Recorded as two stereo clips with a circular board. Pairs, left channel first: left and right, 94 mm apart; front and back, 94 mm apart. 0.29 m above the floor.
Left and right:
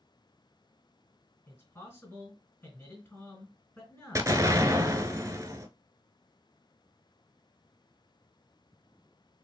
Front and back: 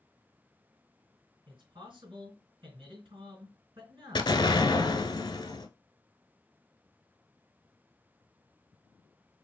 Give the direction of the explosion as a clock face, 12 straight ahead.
1 o'clock.